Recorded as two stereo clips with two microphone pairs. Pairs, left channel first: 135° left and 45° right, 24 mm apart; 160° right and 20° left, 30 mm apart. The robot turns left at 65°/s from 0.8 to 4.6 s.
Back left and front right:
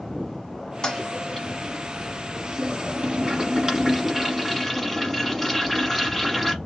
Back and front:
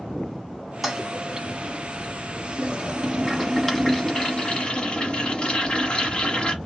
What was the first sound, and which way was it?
A toilet flushing, 105° left.